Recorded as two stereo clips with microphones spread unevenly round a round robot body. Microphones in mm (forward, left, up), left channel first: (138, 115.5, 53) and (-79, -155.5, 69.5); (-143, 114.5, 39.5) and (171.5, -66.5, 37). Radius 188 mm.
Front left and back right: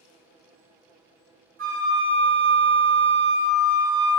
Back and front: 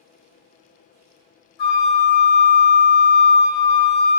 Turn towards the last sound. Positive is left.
turn(degrees=165)